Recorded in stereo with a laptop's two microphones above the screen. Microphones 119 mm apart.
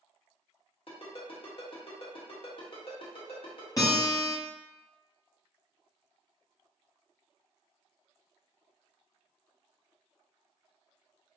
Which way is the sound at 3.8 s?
30° left (ahead or behind).